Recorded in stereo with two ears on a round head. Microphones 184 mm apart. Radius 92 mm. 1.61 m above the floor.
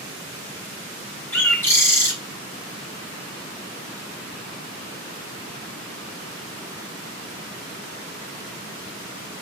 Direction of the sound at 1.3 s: 10° left (ahead or behind).